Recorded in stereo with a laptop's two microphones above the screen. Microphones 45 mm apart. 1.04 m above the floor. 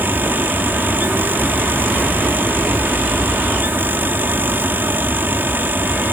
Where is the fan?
50° right (ahead or behind).